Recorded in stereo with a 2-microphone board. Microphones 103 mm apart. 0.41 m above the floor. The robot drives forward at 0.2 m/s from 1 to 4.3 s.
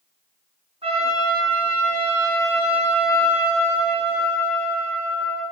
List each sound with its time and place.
0.8 s a trumpet: 65° right (ahead or behind), 4.5 m; by 5.4 s 60° right (ahead or behind), 4.5 m